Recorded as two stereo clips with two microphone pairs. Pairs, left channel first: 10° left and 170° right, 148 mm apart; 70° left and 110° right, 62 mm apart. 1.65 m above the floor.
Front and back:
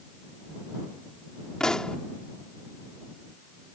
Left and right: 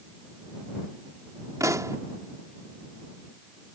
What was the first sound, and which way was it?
A pop, 80° right.